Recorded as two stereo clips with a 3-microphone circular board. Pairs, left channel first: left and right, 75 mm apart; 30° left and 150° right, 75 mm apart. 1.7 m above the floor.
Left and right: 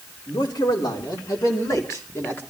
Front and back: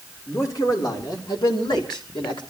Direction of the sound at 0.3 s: 70° left.